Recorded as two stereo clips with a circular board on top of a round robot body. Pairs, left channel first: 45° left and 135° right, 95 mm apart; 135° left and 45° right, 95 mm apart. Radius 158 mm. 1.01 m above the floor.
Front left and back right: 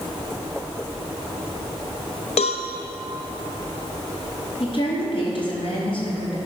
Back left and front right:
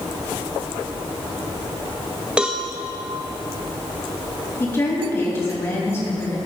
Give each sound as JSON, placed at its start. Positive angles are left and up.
{"t": 2.4, "sound": "a cowbell", "azimuth_deg": 35, "distance_m": 0.7}
{"t": 4.6, "sound": "a woman speaking", "azimuth_deg": 75, "distance_m": 3.0}